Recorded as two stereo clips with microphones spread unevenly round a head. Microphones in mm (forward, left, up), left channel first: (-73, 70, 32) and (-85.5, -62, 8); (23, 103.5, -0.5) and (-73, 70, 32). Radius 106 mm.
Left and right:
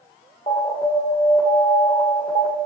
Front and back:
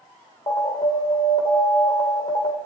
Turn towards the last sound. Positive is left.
turn(degrees=15)